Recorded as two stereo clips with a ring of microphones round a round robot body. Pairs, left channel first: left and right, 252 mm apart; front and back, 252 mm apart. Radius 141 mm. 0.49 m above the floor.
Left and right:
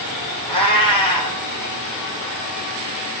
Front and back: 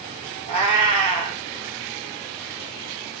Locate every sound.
0.5 s a cat meowing: 160° left, 3.5 m